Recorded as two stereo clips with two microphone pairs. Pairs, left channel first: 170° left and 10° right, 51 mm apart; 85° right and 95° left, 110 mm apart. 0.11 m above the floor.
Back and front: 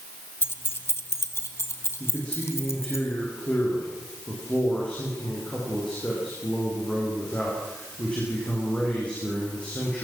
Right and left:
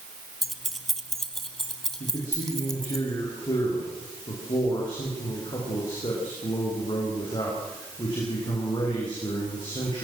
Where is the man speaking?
130° right, 9.5 m.